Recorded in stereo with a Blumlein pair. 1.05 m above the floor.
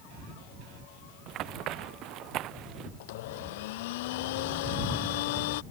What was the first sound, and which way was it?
Running footsteps, 35° right.